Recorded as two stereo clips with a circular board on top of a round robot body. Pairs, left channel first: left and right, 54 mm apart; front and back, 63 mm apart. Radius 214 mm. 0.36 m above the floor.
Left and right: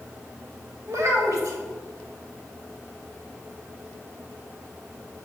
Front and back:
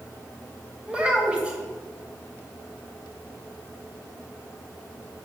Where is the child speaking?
110° right, 1.9 m.